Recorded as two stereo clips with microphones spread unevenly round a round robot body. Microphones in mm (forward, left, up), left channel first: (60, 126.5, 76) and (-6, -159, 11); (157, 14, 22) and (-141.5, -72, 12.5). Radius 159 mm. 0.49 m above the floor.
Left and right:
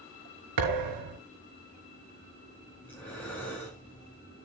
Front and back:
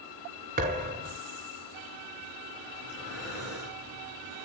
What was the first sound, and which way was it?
A thud, 100° right.